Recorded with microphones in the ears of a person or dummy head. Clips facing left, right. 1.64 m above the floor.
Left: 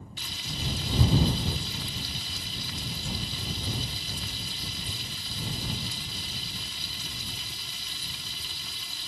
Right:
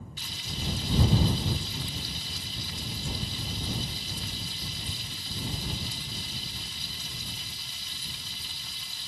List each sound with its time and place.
0.2 s frying: 70° left (ahead or behind)